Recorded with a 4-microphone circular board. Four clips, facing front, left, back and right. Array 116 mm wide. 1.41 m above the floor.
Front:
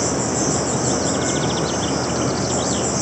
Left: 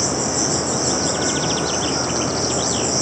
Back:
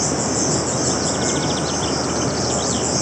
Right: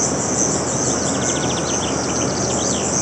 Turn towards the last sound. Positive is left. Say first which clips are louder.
# right 1 dB, even
turn(degrees=10)